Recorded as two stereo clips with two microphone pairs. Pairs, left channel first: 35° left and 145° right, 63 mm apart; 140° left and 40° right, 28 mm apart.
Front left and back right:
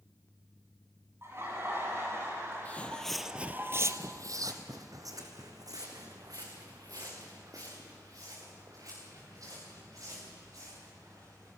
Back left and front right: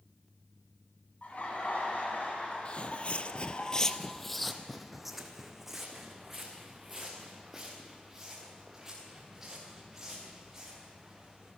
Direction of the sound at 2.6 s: 100° left.